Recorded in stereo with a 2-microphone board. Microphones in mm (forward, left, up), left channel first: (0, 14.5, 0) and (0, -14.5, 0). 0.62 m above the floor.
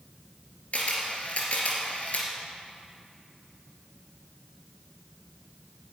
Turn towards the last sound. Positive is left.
turn(degrees=55)  # may be behind; listen again after turning